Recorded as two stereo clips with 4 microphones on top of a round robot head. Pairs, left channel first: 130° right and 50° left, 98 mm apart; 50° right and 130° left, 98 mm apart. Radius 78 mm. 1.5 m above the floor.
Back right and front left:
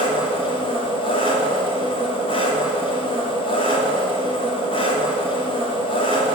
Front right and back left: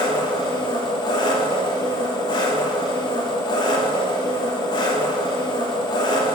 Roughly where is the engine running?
Right.